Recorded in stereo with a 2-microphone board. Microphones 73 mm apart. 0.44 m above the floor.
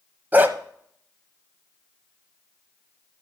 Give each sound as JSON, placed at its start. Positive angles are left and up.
{"t": 0.3, "sound": "a dog barking", "side_deg": -25, "distance_m": 0.8}